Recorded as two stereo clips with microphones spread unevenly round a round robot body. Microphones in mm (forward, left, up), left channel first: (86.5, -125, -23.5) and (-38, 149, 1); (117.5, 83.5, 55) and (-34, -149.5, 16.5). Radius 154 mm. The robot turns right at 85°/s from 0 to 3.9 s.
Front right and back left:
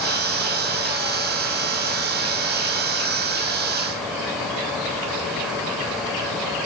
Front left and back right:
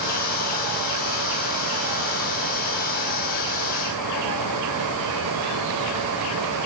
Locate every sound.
Only background noise.